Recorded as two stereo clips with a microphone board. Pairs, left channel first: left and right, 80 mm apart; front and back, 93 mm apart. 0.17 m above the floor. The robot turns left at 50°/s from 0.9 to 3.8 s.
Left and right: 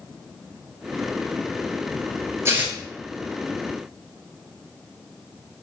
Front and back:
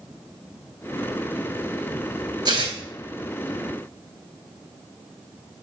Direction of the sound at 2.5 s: 145° right.